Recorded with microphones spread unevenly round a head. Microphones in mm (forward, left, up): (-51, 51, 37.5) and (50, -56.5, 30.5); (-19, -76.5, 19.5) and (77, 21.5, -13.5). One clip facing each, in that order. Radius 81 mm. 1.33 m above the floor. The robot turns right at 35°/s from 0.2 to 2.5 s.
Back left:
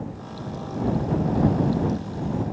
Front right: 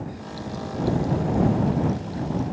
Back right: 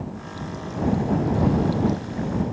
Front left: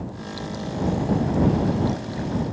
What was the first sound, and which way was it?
Only background noise.